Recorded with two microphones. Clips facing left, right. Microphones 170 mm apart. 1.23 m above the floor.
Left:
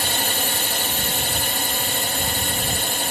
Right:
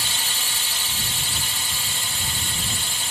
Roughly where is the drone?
Left.